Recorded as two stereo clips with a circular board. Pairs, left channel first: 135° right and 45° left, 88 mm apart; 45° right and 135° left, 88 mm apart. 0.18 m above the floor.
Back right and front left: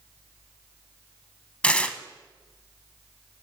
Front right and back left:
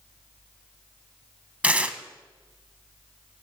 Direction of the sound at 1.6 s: 175° left.